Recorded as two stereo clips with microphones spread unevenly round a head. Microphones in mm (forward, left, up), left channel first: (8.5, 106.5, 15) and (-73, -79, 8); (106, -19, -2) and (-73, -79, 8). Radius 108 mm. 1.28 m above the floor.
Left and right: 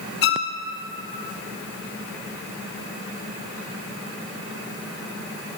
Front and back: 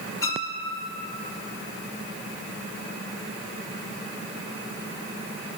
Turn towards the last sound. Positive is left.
turn(degrees=95)